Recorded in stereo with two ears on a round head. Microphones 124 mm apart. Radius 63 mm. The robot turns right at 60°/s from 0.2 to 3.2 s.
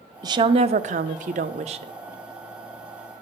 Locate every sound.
0.2 s a woman speaking: 145° right, 0.6 m; by 1.9 s 45° right, 0.6 m